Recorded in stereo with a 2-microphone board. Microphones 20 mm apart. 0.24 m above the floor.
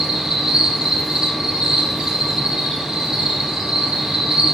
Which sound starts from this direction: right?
An insect, at 0.0 s.